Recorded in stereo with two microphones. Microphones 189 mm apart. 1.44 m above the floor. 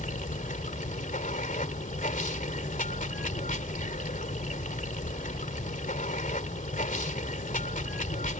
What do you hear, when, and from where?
0.0 s running water: 45° left (ahead or behind)